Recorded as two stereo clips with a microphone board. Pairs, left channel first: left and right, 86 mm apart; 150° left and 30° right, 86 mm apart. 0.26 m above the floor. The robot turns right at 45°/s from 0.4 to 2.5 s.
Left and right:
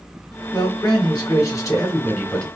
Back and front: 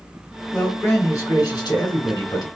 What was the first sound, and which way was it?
A man speaking, 80° left.